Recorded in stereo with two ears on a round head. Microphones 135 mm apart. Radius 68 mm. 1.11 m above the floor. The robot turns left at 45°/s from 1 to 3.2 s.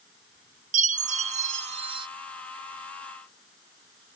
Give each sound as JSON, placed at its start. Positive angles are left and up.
{"t": 0.7, "sound": "a chime", "azimuth_deg": -90, "distance_m": 0.6}